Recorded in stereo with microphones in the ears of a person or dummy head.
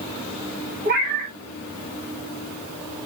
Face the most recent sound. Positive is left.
turn(degrees=-50)  # may be behind; listen again after turning